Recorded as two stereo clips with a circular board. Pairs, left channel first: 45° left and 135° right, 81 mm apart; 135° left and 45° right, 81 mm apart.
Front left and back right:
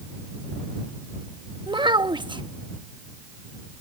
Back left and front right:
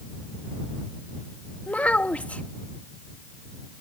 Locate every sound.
1.7 s a child speaking: 150° right